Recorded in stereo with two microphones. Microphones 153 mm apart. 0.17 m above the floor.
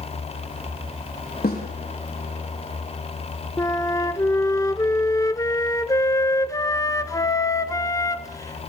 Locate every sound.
1.4 s a snare drum: 75° left (ahead or behind), 8 m
3.6 s a flute: 20° left (ahead or behind), 1.0 m